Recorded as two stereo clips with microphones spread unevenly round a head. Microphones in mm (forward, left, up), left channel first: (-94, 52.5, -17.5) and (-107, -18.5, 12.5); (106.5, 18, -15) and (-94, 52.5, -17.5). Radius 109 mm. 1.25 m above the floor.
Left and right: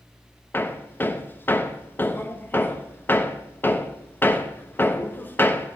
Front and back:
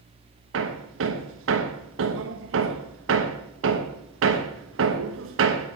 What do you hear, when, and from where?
0.5 s hammering: 145° left, 1.1 m